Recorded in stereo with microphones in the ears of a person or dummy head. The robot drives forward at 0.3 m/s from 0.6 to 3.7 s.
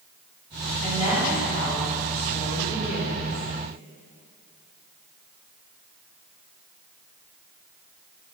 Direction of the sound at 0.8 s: 35° left (ahead or behind).